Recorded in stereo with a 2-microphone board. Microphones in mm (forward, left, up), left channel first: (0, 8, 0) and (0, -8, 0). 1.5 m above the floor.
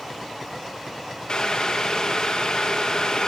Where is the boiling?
65° left (ahead or behind), 2 m.